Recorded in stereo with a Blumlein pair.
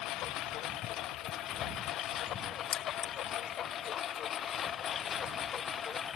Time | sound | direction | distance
0.0 | a lawn mower | 35° left | ?
2.7 | keys jangling | 25° left | ?